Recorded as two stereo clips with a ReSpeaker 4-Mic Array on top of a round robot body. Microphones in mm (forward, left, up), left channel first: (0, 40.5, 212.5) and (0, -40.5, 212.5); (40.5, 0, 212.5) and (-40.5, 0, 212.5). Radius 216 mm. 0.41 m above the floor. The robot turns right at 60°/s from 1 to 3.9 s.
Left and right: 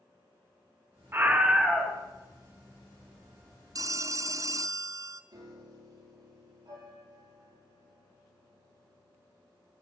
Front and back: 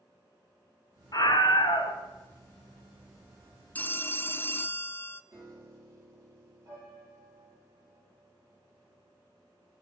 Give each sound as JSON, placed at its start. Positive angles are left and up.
{"t": 1.1, "sound": "a scream", "azimuth_deg": -30, "distance_m": 2.0}
{"t": 3.8, "sound": "a phone ringing", "azimuth_deg": -65, "distance_m": 0.7}
{"t": 5.3, "sound": "a piano", "azimuth_deg": -130, "distance_m": 8.0}